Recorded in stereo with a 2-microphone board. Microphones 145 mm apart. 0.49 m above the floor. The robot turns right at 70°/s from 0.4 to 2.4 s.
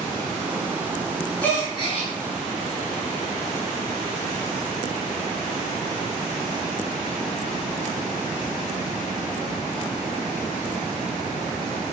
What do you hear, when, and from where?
1.4 s a gasp: 10° left, 1.7 m; by 2.1 s 60° left, 1.7 m